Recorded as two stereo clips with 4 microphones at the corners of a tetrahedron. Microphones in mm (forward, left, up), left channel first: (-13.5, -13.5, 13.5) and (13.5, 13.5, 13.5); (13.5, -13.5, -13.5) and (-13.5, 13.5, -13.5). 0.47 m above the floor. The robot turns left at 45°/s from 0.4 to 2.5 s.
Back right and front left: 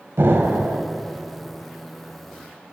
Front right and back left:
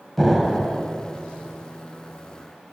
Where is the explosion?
45° left, 1.0 m; by 0.8 s 25° left, 1.0 m.